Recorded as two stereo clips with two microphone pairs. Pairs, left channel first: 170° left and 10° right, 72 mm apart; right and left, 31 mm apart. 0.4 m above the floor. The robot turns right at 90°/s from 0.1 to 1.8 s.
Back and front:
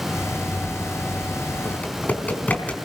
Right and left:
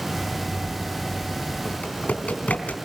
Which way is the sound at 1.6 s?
135° right.